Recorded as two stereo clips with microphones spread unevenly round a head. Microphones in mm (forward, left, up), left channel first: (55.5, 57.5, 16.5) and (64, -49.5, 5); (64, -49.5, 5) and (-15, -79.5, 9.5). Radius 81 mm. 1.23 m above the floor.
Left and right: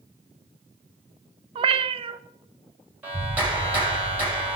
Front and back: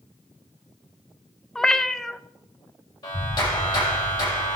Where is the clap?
10° right, 6 m.